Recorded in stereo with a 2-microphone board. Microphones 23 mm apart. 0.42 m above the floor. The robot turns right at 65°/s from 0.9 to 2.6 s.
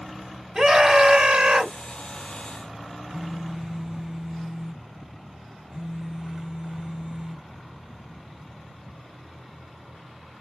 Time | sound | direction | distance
0.6 | a scream | 135° right | 2 m
3.1 | a phone buzzing | 35° right (ahead or behind) | 2 m